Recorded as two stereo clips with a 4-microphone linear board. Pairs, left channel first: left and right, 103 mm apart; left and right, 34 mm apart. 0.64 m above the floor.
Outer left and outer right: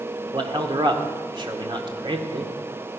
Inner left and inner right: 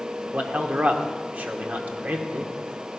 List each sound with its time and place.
0.3 s a man speaking: 50° right (ahead or behind), 1.6 m